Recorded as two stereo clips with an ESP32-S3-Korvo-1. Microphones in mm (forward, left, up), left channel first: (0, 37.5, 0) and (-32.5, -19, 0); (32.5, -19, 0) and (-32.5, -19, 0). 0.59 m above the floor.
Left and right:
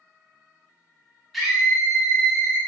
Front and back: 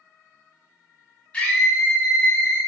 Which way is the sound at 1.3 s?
30° right.